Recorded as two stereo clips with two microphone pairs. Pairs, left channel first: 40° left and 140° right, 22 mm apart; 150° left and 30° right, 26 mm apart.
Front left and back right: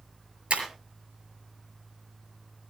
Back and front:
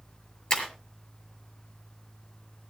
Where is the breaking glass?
160° right, 5.5 m.